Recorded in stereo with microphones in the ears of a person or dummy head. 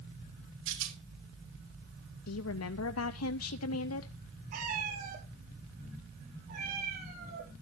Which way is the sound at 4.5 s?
45° right (ahead or behind).